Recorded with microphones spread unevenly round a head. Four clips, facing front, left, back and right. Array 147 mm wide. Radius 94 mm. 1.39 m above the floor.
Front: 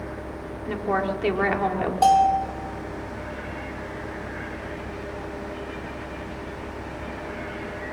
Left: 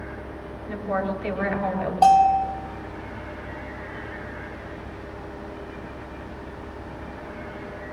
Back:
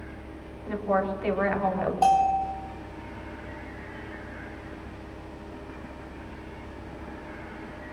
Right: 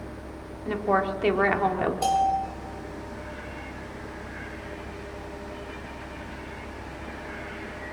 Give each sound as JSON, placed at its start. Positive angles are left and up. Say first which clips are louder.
{"t": 0.7, "sound": "a woman speaking", "louder": "right 3 dB, front 1 dB", "azimuth_deg": -60, "distance_m": 4.0}
{"t": 2.0, "sound": "a bell", "louder": "left 9 dB, front 4 dB", "azimuth_deg": 55, "distance_m": 4.0}